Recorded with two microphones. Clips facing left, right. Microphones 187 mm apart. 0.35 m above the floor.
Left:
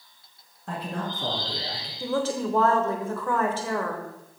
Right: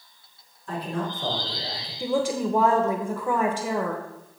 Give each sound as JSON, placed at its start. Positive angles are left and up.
{"t": 0.7, "sound": "a man speaking", "side_deg": 65, "distance_m": 3.0}
{"t": 2.0, "sound": "a woman speaking", "side_deg": -15, "distance_m": 0.9}